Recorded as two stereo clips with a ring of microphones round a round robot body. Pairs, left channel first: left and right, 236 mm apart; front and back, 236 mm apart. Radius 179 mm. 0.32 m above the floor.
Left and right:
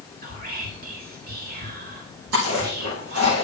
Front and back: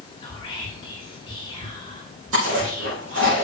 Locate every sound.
0.2 s whispering: 60° right, 2 m
2.3 s chewing: 130° right, 5 m